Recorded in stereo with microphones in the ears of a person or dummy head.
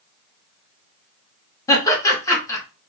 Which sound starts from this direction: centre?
Laughter, at 1.7 s.